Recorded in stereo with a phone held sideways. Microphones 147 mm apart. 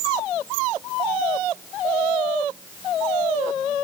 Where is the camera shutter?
I don't hear a camera shutter.